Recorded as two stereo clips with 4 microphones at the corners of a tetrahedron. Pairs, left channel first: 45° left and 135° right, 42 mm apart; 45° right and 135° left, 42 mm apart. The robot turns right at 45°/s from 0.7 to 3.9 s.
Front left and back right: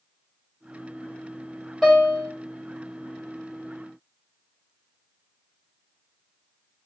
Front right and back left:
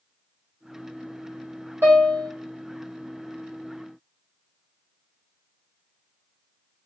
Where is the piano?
140° left, 1.7 m; by 2.3 s 160° left, 1.7 m.